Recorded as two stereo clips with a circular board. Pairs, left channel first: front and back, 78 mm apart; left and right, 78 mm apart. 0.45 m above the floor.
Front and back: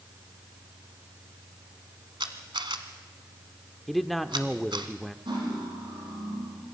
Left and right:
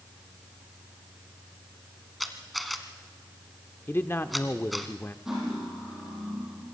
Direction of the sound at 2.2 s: Straight behind.